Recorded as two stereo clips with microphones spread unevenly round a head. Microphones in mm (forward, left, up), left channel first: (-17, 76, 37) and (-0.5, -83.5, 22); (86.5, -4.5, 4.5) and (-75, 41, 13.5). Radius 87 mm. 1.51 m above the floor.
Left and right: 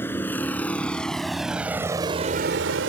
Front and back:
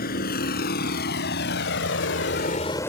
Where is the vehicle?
20° left; by 2.9 s 95° right.